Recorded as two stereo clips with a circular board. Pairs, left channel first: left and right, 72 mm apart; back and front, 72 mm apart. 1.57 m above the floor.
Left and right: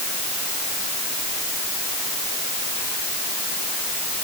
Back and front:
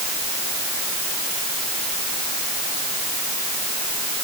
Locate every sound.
Only background noise.